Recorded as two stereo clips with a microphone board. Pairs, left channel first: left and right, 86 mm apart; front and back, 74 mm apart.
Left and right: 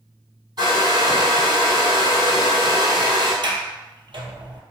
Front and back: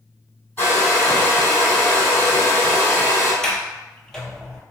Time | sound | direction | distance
0.6 | a hair dryer | 60° right | 1.9 m
3.4 | a sliding door | 80° right | 0.7 m